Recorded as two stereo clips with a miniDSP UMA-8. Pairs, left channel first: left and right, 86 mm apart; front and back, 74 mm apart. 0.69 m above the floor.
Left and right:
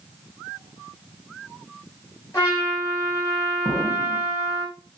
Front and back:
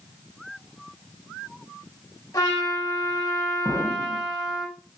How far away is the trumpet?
About 5.5 m.